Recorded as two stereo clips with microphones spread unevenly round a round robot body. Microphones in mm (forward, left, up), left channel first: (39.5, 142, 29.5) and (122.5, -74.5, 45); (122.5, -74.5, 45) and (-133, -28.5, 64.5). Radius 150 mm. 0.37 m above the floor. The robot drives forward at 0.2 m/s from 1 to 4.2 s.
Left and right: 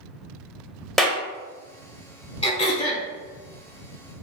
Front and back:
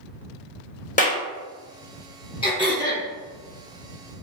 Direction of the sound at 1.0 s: 25° left.